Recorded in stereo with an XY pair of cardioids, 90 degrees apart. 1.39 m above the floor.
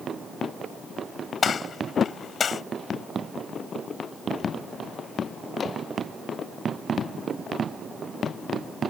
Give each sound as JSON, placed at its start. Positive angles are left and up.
{"t": 1.4, "sound": "a gunshot", "azimuth_deg": 50}